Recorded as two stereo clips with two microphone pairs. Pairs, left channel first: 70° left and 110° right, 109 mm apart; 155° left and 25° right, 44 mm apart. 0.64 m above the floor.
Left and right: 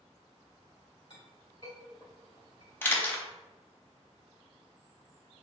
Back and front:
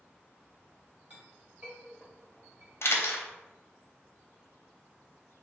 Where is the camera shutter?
140° left, 0.6 m.